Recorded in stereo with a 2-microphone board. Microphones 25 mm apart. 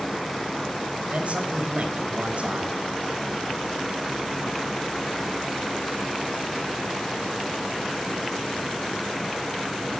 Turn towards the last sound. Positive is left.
turn(degrees=-55)  # may be behind; listen again after turning